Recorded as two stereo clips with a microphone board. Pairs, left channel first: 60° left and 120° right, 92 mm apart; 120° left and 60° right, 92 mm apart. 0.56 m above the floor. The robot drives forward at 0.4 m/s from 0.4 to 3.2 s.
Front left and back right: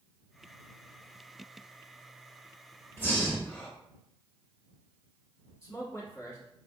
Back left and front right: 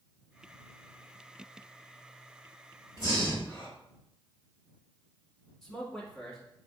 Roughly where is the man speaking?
Ahead left.